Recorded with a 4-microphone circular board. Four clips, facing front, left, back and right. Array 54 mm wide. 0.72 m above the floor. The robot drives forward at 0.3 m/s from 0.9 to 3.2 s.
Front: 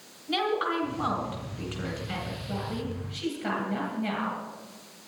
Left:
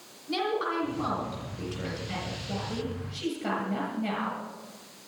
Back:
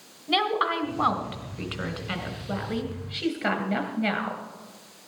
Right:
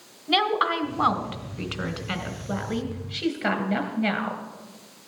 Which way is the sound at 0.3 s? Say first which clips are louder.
Right 7 dB, back 3 dB; 125° right.